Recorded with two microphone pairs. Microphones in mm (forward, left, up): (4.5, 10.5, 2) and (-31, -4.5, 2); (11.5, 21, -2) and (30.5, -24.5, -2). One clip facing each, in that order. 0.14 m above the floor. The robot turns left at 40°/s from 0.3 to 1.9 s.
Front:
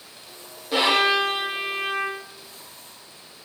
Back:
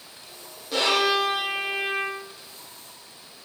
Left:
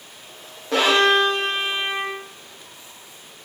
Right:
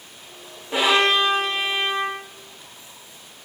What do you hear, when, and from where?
0.7 s a violin: 95° left, 3.5 m; by 2.2 s 50° left, 3.5 m